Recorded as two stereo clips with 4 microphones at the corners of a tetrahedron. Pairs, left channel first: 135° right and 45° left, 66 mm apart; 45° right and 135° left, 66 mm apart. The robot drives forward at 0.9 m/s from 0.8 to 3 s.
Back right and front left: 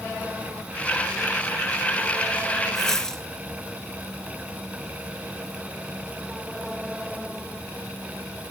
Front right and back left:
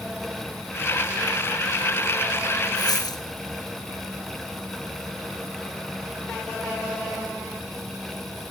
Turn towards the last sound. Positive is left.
turn(degrees=-50)